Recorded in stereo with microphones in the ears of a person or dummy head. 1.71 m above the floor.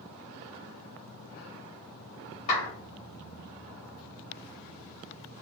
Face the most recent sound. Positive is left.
turn(degrees=35)  # may be behind; listen again after turning